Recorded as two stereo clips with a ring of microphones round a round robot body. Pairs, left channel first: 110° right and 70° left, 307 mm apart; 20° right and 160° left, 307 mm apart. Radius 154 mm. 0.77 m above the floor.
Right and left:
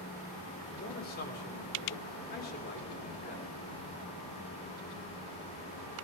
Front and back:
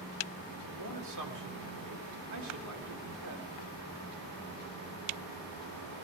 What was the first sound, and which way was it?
A man speaking, 175° right.